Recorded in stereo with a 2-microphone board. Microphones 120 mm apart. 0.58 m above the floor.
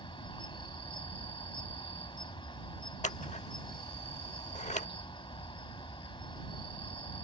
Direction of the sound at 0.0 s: 45° left (ahead or behind).